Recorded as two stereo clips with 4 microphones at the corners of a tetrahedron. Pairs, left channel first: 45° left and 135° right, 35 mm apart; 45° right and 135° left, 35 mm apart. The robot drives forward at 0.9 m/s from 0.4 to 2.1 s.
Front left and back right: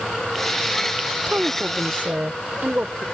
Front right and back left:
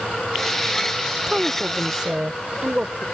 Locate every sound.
1.3 s a woman speaking: 160° right; by 3.0 s 170° right